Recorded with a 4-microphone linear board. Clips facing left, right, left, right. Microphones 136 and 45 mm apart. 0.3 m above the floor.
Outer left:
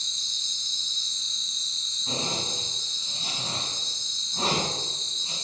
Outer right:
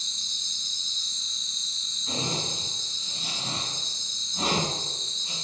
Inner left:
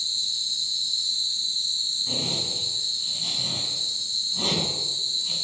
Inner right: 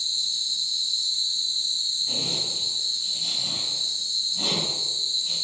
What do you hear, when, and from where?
0.0 s an insect: 25° left (ahead or behind), 2.0 m
2.1 s a zipper: 35° left (ahead or behind), 1.7 m